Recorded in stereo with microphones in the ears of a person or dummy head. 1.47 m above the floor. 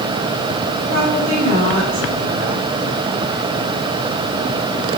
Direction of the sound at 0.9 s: 80° right.